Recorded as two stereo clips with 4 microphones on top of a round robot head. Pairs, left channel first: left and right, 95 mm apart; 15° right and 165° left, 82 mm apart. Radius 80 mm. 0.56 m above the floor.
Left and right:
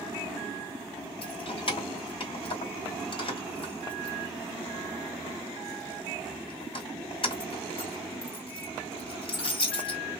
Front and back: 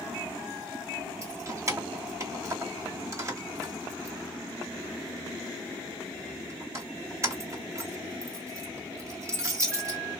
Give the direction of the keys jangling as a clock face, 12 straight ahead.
8 o'clock.